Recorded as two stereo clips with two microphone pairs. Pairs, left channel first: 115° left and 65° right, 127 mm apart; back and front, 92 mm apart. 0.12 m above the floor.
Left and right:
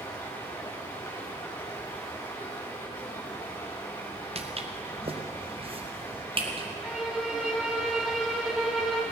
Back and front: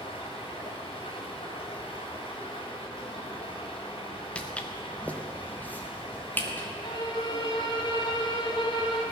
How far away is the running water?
About 6 m.